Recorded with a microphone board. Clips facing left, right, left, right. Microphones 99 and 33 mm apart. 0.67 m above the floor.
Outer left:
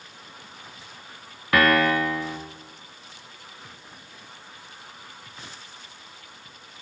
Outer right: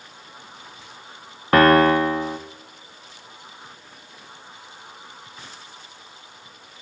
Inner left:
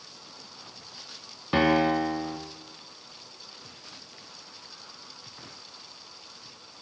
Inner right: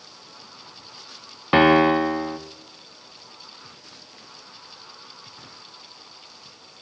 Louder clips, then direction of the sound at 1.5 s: Outer right 6 dB, inner right 7 dB; 35° right (ahead or behind).